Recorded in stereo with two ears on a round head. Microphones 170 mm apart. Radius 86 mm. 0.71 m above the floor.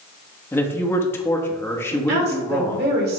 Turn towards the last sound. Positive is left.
turn(degrees=-50)  # may be behind; listen again after turning